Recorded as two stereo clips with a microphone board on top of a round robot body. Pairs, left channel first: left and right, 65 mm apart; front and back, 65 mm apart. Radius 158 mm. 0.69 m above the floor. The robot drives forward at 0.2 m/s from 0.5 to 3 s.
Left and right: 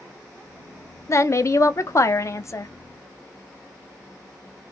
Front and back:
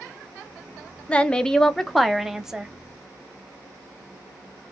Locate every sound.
1.1 s a woman speaking: 65° left, 0.7 m; by 2.7 s 105° left, 0.7 m